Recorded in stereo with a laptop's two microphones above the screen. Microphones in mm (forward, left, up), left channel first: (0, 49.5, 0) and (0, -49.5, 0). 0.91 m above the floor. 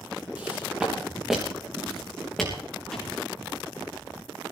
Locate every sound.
0.3 s footsteps: 15° right (ahead or behind), 3 m; by 2.5 s 5° left (ahead or behind), 3 m
2.9 s a thud: 5° left (ahead or behind), 4.5 m